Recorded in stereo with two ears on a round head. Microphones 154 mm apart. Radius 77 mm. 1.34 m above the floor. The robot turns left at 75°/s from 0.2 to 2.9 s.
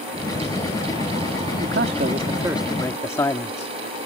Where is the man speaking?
100° right; by 3.7 s 160° left.